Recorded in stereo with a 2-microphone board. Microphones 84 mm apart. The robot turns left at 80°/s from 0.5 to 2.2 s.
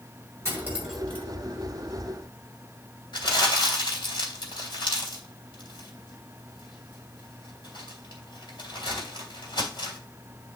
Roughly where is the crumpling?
Left.